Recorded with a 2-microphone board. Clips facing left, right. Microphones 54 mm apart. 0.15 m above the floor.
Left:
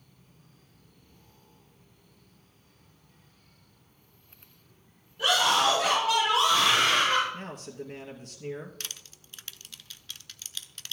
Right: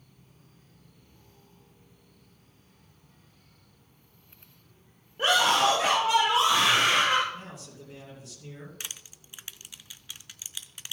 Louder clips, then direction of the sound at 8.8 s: Even; 15° right (ahead or behind).